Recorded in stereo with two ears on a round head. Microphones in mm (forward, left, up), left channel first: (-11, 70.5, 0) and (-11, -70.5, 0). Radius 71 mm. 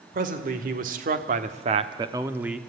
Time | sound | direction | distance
0.1 | a man speaking | 60° right (ahead or behind) | 2.5 m